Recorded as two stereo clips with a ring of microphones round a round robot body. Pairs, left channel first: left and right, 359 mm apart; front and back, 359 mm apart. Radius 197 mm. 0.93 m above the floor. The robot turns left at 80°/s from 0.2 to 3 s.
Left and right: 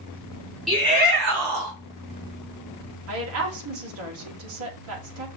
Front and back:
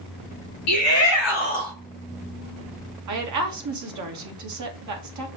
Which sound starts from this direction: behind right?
A woman speaking, at 3.1 s.